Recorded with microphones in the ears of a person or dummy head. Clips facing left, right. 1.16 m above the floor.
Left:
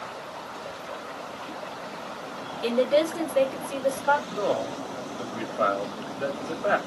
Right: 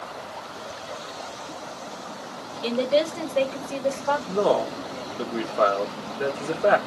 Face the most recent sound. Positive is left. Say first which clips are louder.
# right 5 dB
turn(degrees=-70)  # may be behind; listen again after turning